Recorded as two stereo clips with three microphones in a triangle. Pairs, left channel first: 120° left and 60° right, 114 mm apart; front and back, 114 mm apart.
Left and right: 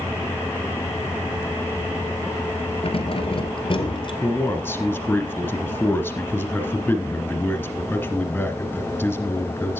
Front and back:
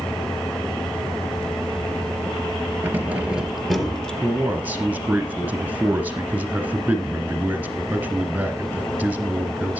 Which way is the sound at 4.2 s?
140° left.